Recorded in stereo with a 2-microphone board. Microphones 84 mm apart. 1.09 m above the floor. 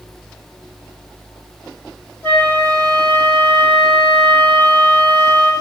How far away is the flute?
About 2.5 m.